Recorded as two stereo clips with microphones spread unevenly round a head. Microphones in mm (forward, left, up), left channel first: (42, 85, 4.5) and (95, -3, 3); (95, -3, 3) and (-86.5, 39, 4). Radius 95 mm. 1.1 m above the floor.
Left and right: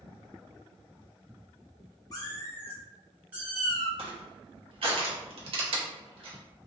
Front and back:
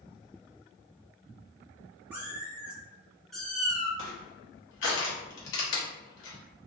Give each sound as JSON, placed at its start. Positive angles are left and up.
{"t": 2.1, "sound": "a cat meowing", "azimuth_deg": 95, "distance_m": 0.8}
{"t": 4.0, "sound": "crushing", "azimuth_deg": -35, "distance_m": 0.8}